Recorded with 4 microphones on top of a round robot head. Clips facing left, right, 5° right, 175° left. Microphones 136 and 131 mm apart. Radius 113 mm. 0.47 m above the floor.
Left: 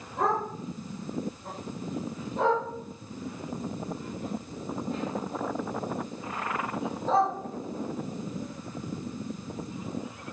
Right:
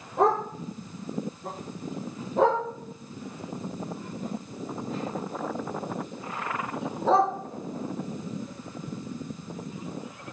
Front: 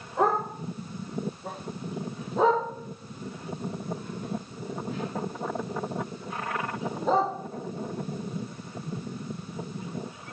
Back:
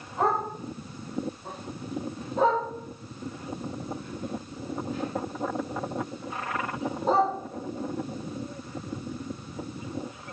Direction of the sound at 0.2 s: 85° right.